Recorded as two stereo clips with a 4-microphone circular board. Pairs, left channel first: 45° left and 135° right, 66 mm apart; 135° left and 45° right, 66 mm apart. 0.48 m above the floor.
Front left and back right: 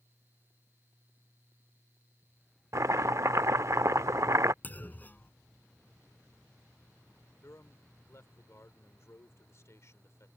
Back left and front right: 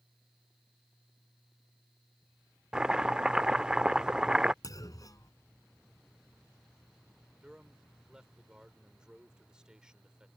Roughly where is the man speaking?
Ahead left.